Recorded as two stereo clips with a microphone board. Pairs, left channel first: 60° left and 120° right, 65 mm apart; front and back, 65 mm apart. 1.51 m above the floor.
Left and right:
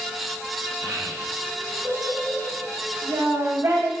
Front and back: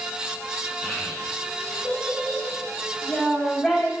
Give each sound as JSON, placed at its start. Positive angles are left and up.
{"t": 0.8, "sound": "a child speaking", "azimuth_deg": -70, "distance_m": 5.0}